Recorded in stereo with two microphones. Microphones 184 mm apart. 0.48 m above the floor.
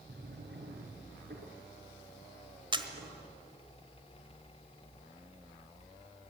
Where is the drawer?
70° right (ahead or behind), 5 m.